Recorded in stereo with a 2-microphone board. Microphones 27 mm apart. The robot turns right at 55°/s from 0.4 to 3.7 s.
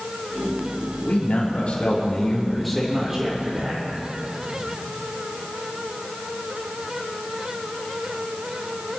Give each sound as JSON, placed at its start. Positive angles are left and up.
{"t": 1.1, "sound": "a man speaking", "azimuth_deg": 95, "distance_m": 5.0}